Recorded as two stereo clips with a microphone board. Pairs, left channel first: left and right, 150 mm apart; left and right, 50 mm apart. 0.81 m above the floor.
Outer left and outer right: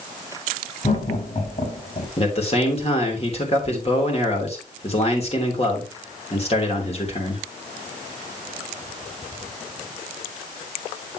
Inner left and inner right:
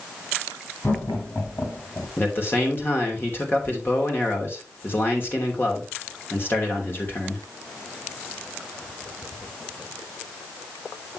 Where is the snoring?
No snoring in this recording.